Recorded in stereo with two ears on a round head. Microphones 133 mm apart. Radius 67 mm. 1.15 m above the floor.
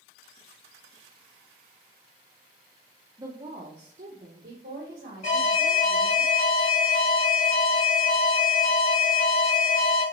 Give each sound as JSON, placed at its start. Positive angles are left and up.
{"t": 3.2, "sound": "a woman speaking", "side_deg": -20, "distance_m": 0.6}
{"t": 5.2, "sound": "an alarm", "side_deg": 50, "distance_m": 1.5}